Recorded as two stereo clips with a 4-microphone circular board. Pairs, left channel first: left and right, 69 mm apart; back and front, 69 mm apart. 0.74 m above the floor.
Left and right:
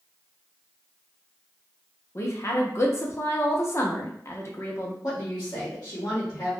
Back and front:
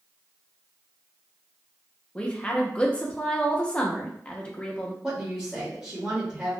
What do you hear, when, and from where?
2.1 s a woman speaking: 110° left, 0.6 m
5.0 s a woman speaking: 70° left, 1.1 m